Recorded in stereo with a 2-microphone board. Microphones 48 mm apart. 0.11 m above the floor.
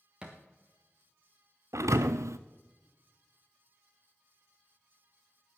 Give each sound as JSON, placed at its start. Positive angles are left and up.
{"t": 0.2, "sound": "a thud", "side_deg": -15, "distance_m": 2.0}
{"t": 1.7, "sound": "a thud", "side_deg": -90, "distance_m": 0.7}